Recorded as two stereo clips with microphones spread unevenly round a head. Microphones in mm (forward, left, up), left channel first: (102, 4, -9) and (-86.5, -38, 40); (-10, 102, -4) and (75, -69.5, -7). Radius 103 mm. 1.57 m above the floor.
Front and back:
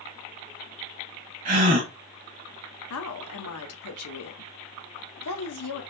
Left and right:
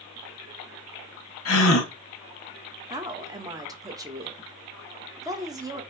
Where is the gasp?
145° left, 0.9 m.